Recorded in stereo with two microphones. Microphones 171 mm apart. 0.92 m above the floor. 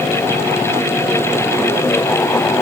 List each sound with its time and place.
Only background noise.